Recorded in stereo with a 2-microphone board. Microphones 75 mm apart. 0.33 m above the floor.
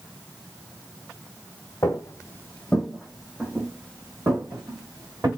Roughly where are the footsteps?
Left.